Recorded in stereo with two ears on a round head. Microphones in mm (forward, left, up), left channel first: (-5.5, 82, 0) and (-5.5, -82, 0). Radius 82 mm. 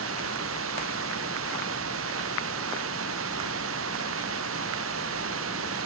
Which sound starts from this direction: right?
Running water, at 0.0 s.